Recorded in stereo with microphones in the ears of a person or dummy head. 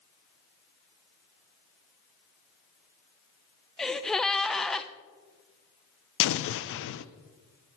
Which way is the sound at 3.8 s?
Centre (ahead or behind).